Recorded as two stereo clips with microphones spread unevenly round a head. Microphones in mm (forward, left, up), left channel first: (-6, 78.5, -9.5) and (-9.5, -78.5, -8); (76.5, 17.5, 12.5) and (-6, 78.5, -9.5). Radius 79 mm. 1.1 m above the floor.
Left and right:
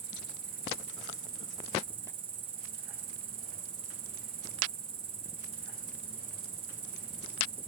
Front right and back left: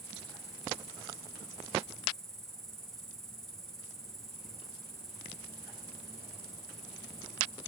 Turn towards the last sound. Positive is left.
turn(degrees=-135)